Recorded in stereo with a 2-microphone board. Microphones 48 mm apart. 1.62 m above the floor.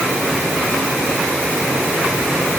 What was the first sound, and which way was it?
Only background noise.